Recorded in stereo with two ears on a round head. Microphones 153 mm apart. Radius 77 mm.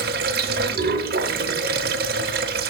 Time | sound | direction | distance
0.0 | running water | 60° right (ahead or behind) | 0.9 m